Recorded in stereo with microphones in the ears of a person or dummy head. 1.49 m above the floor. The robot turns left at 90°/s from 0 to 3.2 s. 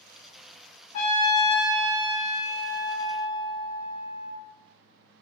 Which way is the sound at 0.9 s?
55° left.